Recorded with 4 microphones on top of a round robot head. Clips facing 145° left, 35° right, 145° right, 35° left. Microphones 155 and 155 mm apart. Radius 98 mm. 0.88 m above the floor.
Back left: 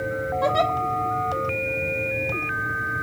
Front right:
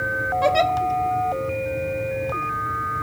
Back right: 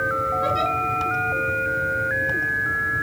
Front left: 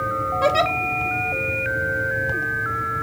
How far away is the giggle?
About 1.4 m.